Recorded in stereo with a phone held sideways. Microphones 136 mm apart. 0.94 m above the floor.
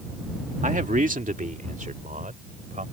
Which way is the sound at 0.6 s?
70° right (ahead or behind).